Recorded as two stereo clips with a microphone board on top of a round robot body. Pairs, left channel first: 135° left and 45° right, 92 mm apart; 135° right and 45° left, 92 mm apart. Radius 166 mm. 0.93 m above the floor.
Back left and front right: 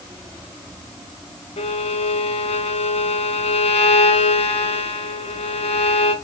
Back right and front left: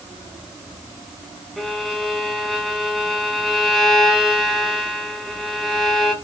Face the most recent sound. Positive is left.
turn(degrees=135)